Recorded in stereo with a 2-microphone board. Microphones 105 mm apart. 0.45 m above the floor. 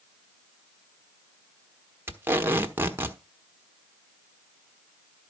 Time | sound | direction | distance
2.1 | tape being pulled | 20° right (ahead or behind) | 1.1 m